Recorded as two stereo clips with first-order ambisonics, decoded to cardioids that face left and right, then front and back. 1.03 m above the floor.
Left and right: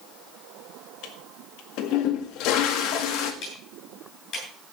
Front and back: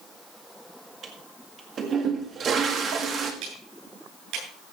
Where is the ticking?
145° left, 8.5 m.